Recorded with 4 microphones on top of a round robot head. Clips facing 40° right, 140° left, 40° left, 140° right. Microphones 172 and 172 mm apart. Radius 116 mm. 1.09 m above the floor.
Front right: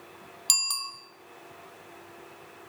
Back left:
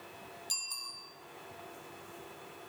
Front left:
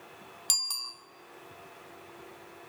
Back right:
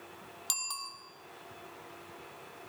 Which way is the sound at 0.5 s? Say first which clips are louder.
Front right 9 dB, back right 2 dB; 35° right.